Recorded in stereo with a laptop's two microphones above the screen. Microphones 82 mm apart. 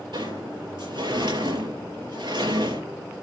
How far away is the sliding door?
About 5 m.